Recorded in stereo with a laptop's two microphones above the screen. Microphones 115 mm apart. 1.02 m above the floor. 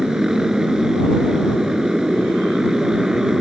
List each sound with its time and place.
0.0 s a motorcycle: 5° right (ahead or behind)